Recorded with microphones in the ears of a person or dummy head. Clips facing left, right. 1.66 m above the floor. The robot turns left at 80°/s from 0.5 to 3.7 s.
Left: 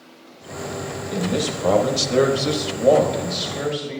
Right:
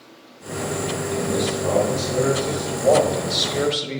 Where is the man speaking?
170° left, 1.3 m; by 4.0 s 35° right, 1.3 m.